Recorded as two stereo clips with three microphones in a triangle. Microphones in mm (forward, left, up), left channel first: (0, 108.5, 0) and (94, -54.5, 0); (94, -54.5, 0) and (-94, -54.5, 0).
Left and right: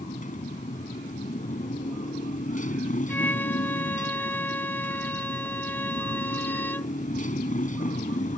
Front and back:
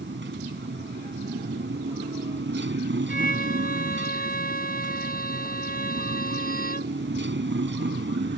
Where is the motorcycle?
165° left.